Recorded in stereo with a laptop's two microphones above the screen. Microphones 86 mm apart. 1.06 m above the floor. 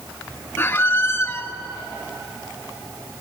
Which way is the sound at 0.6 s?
25° left (ahead or behind).